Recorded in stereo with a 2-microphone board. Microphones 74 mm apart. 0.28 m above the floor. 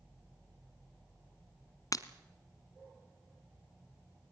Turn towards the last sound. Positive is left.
turn(degrees=55)  # may be behind; listen again after turning